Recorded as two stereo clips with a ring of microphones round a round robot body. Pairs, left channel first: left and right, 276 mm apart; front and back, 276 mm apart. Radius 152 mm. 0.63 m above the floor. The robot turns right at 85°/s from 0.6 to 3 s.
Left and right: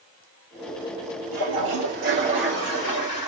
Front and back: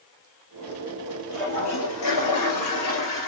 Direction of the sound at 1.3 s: 95° right.